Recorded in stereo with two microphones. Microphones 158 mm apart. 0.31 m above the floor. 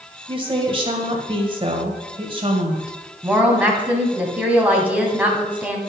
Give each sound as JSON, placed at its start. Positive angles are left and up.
{"t": 0.3, "sound": "a woman speaking", "side_deg": -35, "distance_m": 1.8}
{"t": 3.2, "sound": "a woman speaking", "side_deg": -10, "distance_m": 2.5}